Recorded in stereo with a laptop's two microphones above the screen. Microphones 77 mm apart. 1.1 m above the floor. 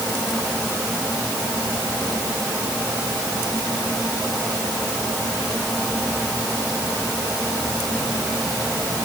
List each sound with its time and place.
Only background noise.